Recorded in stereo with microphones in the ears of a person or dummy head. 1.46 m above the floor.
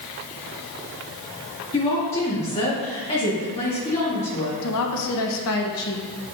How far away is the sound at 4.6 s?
About 1.3 m.